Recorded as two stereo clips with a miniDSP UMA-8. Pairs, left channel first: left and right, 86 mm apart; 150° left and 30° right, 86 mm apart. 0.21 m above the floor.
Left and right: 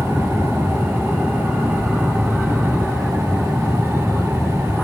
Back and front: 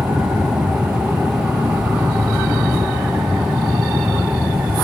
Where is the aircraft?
10° right.